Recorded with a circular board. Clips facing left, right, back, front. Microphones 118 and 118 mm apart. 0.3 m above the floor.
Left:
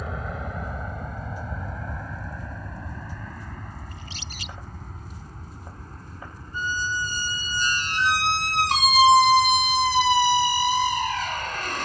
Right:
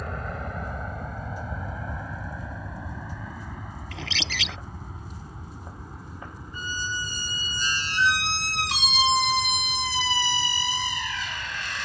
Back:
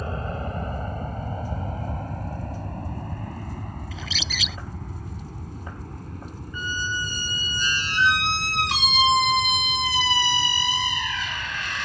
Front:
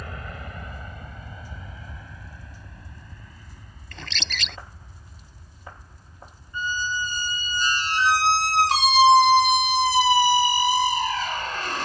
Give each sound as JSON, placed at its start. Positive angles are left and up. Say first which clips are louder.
{"t": 0.0, "sound": "an aircraft", "louder": "left 1 dB, back 8 dB", "azimuth_deg": 175}
{"t": 3.9, "sound": "a bird", "louder": "right 7 dB, back 3 dB", "azimuth_deg": -95}
{"t": 6.5, "sound": "a squeak", "louder": "left 5 dB, front 2 dB", "azimuth_deg": 50}